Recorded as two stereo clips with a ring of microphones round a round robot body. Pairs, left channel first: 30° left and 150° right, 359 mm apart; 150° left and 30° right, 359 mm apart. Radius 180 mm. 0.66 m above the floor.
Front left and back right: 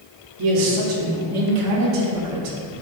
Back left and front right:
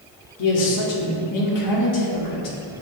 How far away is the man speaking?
About 1.5 m.